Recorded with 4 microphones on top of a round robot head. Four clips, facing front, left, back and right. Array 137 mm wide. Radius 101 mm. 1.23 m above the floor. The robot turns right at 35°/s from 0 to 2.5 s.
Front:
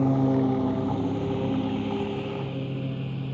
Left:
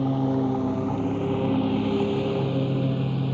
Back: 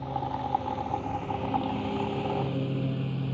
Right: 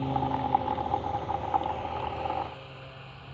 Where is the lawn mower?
25° left; by 3.4 s 95° left.